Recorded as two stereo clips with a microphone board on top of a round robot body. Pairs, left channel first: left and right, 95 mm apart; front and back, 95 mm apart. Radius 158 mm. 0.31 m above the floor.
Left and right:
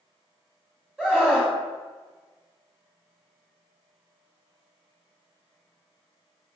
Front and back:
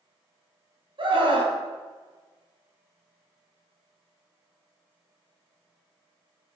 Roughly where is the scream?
Behind.